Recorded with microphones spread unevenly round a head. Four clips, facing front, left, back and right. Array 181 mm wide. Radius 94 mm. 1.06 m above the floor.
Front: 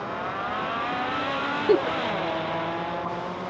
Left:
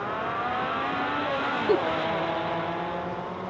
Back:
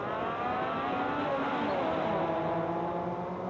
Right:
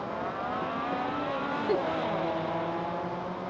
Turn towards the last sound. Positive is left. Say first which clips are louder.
# left 5 dB, front 9 dB
turn(degrees=20)